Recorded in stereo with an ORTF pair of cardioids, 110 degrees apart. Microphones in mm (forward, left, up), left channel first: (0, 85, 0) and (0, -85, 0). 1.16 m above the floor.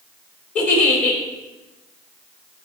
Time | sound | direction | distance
0.6 | a giggle | 50° left | 4 m